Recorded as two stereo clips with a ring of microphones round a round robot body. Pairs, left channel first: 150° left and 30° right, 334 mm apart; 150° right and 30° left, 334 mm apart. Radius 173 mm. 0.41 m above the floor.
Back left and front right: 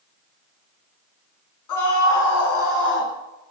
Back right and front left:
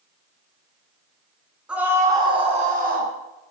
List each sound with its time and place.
1.7 s a scream: 115° left, 3.5 m; by 3.1 s 90° left, 3.5 m